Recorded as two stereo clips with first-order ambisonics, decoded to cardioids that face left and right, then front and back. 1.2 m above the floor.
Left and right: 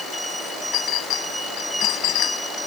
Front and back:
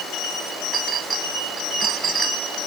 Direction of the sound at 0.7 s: 115° left.